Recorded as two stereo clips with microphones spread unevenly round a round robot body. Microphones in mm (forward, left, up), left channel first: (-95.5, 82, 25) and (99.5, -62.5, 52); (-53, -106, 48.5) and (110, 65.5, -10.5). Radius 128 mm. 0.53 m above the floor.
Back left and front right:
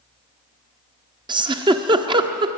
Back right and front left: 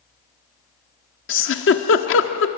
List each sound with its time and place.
1.3 s a giggle: 110° right, 1.3 m